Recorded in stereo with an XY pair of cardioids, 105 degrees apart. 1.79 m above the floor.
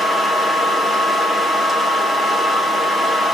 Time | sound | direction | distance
0.0 | a fan | 35° left | 1.8 m